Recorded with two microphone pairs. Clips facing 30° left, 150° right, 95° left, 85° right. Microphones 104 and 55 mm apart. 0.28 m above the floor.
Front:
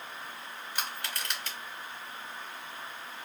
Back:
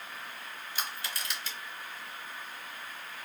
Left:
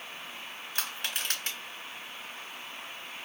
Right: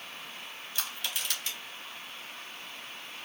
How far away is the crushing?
About 2.5 m.